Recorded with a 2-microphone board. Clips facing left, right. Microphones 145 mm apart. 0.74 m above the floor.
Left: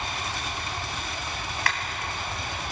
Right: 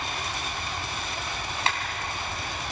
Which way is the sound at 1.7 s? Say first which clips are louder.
Right 2 dB; 25° right (ahead or behind).